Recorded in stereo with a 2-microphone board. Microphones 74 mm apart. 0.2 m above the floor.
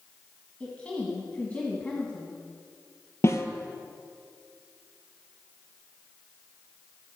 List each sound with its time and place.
0.6 s a woman speaking: 20° left (ahead or behind), 1.8 m
3.2 s a snare drum: 40° left (ahead or behind), 0.9 m